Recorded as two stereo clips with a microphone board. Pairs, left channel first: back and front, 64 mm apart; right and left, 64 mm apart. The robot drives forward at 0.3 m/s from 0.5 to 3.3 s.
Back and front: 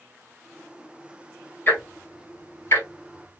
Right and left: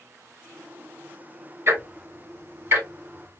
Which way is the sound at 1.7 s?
125° left.